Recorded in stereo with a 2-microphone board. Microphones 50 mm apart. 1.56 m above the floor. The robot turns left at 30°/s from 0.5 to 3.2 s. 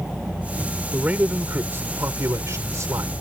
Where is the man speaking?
25° right; by 3.1 s 90° right.